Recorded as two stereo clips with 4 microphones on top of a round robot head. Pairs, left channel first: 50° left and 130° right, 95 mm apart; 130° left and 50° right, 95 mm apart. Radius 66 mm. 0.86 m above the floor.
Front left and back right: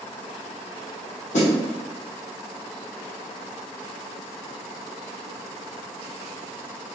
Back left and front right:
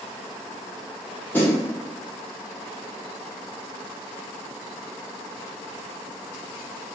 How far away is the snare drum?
About 1.0 m.